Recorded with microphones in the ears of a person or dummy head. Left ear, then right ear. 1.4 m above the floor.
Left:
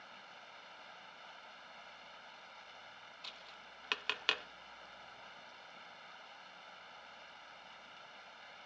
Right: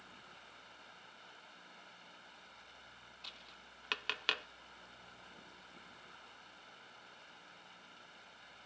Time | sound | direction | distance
0.0 | running water | 20° left (ahead or behind) | ?
3.2 | tapping | 5° left (ahead or behind) | ?